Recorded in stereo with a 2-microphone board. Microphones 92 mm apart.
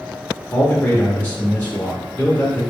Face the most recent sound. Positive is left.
turn(degrees=20)  # may be behind; listen again after turning